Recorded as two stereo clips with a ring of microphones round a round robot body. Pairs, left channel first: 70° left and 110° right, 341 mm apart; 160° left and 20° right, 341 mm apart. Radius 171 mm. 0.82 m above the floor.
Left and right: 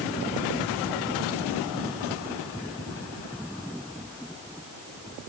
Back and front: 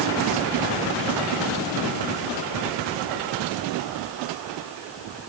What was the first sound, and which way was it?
Only background noise.